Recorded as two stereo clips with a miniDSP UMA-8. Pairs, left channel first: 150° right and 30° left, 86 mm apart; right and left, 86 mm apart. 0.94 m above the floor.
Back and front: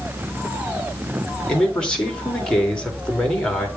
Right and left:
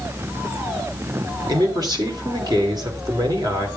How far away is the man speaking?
About 3 m.